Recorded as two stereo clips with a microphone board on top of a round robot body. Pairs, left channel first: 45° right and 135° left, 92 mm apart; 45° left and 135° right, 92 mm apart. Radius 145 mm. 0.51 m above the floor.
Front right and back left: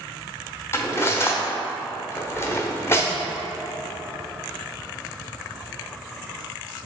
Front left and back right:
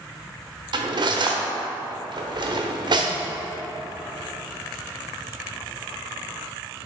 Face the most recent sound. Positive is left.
turn(degrees=-105)